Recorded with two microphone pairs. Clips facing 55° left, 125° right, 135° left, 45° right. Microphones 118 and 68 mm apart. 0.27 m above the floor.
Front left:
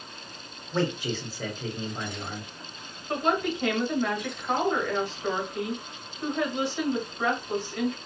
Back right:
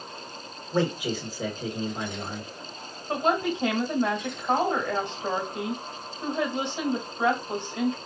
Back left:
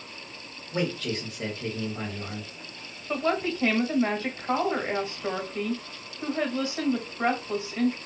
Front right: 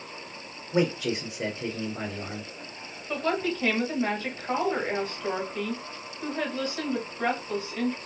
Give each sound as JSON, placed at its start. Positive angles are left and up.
{"t": 0.7, "sound": "a man speaking", "azimuth_deg": -75, "distance_m": 0.9}
{"t": 3.1, "sound": "a woman speaking", "azimuth_deg": -165, "distance_m": 1.3}